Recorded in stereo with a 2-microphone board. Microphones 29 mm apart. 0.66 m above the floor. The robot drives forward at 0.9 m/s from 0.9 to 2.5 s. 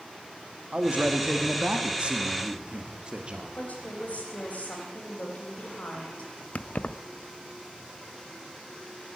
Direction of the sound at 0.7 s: 40° right (ahead or behind).